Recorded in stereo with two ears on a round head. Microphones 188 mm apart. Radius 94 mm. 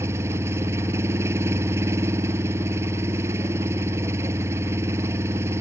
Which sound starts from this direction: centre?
An engine running, at 0.0 s.